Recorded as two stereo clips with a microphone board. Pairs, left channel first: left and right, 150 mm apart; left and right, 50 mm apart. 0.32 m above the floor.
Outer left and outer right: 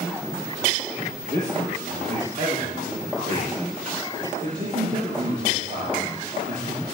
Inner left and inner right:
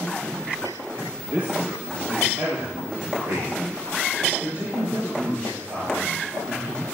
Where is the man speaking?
55° right (ahead or behind), 5.5 m.